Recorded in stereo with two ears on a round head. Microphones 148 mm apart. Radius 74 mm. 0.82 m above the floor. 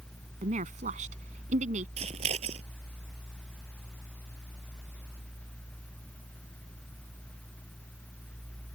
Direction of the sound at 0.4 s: 45° right (ahead or behind).